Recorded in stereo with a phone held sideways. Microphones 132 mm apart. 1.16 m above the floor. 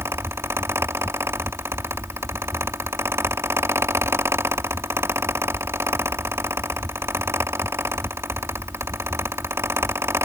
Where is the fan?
20° right (ahead or behind).